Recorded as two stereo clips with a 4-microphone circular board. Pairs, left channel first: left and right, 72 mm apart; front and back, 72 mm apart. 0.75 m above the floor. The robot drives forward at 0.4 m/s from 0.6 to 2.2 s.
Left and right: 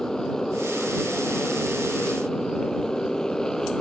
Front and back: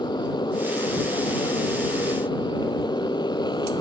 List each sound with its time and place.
0.0 s a motorcycle: 10° left